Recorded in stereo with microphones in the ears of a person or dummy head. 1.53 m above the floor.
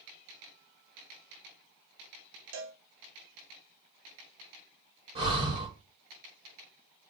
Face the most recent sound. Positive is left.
turn(degrees=-30)  # may be behind; listen again after turning